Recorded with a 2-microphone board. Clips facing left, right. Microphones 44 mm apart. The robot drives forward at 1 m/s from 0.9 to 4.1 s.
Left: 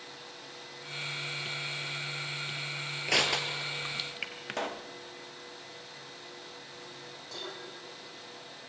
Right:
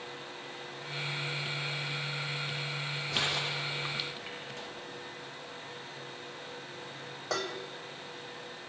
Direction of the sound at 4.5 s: 60° left (ahead or behind).